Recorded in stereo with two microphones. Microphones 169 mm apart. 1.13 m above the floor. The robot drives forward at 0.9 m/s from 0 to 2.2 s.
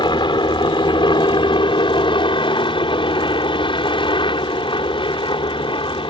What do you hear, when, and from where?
0.0 s a helicopter: 25° left (ahead or behind); by 6.1 s 30° left (ahead or behind)